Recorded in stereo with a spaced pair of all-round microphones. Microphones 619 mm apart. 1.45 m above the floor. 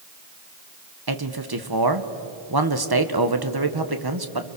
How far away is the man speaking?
About 1.5 m.